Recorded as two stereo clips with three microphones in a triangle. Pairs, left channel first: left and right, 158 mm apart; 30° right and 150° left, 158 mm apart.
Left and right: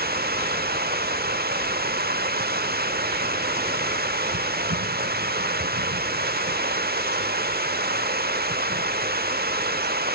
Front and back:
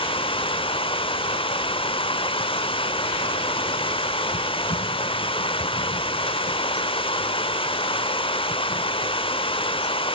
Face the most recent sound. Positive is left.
turn(degrees=-85)